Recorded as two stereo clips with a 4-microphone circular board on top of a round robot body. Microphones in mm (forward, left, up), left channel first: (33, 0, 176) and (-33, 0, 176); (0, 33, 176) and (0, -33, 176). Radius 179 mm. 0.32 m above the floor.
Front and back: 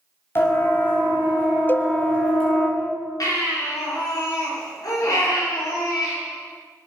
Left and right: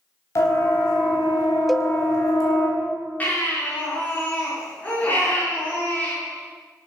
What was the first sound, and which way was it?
A siren, 50° left.